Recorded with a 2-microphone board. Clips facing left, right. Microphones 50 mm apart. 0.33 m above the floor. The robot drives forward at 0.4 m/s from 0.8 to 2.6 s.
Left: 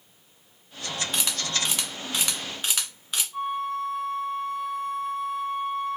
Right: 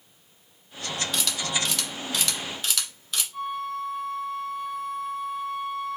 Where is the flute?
Centre (ahead or behind), 0.7 m.